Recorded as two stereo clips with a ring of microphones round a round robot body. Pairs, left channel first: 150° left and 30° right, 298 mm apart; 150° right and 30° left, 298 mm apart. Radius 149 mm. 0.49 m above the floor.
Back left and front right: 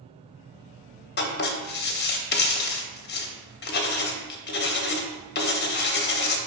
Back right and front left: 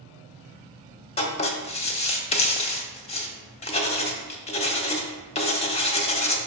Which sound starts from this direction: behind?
Writing, at 1.2 s.